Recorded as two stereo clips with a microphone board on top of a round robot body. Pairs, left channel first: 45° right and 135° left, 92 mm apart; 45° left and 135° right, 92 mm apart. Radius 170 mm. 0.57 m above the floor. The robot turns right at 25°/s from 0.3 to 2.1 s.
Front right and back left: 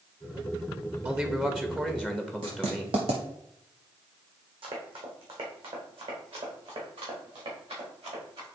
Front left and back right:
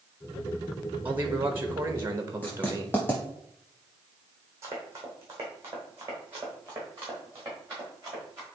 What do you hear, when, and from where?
1.1 s a man speaking: 175° right, 1.2 m; by 3.0 s 150° right, 1.2 m
2.4 s writing: 115° left, 0.6 m
4.6 s running footsteps: 165° left, 1.9 m; by 8.4 s 160° left, 5.5 m